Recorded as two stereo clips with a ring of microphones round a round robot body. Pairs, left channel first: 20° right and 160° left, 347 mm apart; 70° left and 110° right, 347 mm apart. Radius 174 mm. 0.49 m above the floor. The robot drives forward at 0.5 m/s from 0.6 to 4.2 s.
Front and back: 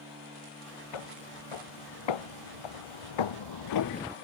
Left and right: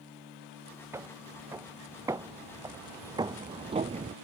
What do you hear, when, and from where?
0.9 s footsteps: 30° right; by 4.2 s 165° right